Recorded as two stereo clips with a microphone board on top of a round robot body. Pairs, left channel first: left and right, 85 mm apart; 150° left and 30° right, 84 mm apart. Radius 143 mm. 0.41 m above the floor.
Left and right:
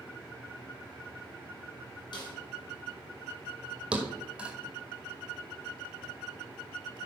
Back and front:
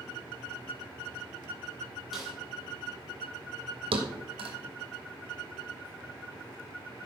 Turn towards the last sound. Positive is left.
turn(degrees=-10)